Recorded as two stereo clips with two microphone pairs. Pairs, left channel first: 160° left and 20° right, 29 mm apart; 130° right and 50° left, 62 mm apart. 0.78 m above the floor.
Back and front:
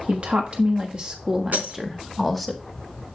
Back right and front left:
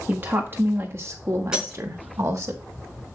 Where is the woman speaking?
5° right, 1.5 m; by 2.5 s 70° left, 1.8 m.